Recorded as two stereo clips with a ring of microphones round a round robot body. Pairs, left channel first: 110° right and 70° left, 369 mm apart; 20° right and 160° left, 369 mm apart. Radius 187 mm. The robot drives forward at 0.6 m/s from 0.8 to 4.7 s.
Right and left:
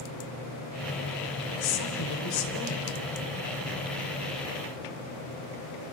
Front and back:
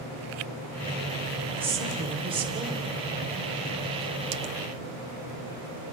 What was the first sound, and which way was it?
A woman speaking, 120° right.